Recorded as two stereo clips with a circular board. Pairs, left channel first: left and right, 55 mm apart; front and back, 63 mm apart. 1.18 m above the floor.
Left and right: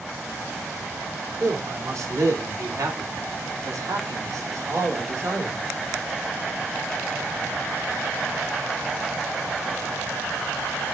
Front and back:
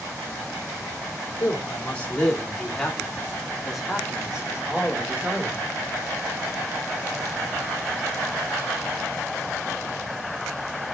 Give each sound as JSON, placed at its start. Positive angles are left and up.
{"t": 1.4, "sound": "a man speaking", "azimuth_deg": -60, "distance_m": 3.0}